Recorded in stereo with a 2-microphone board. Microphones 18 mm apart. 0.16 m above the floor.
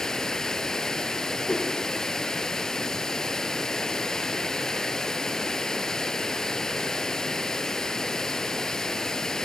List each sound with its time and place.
0.0 s running water: 30° left (ahead or behind), 1.1 m
1.5 s a whoosh: 55° left (ahead or behind), 7 m